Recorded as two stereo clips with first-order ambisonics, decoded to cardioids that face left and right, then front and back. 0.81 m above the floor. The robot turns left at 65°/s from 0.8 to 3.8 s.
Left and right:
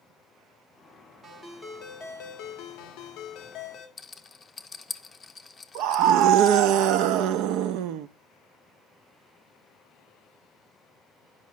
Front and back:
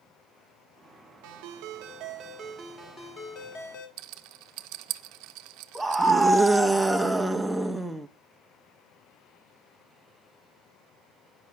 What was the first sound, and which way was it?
A ringtone, 175° right.